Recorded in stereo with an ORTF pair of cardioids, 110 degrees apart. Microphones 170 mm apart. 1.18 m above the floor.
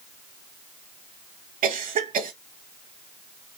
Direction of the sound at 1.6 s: 50° right.